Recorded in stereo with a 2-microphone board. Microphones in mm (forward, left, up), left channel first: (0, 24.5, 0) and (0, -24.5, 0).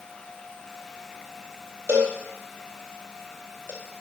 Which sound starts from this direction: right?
A cowbell, at 1.9 s.